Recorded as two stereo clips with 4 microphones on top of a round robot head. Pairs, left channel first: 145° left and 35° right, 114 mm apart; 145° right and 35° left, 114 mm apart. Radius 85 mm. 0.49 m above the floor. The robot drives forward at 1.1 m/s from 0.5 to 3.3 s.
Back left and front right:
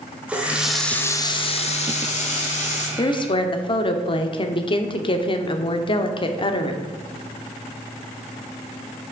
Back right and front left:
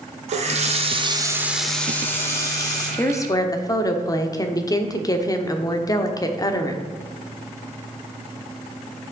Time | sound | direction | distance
0.3 | a running tap | 45° left | 1.1 m
3.0 | a woman speaking | 155° left | 0.7 m